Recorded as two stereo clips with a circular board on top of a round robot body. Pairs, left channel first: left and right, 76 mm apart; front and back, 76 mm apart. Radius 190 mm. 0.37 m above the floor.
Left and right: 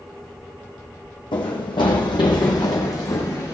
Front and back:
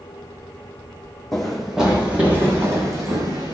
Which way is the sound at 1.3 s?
85° left.